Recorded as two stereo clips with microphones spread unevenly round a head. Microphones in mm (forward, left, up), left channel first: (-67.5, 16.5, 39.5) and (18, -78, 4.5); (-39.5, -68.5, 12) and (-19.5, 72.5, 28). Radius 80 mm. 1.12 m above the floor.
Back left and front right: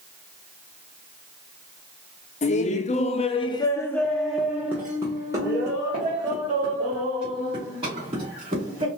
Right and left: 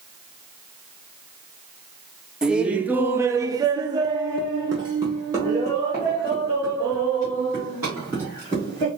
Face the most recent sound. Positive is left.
turn(degrees=5)